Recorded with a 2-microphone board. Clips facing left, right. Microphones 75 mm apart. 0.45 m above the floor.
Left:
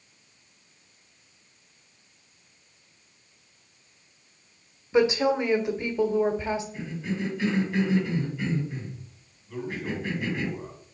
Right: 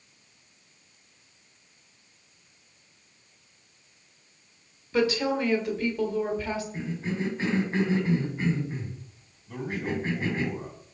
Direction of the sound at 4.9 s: 20° left (ahead or behind).